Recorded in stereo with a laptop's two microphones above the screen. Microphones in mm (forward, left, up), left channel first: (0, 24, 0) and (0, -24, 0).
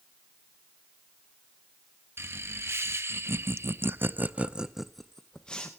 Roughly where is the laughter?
Right.